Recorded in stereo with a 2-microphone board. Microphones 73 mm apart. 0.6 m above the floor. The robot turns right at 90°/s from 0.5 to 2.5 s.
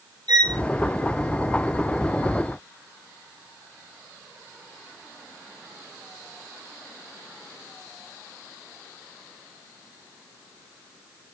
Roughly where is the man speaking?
I don't hear a man speaking.